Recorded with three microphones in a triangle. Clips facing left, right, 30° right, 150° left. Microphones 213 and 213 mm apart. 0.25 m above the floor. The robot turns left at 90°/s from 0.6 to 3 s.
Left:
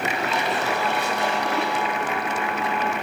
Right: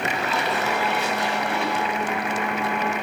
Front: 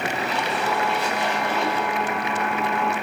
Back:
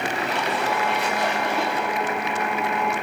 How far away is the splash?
About 9 m.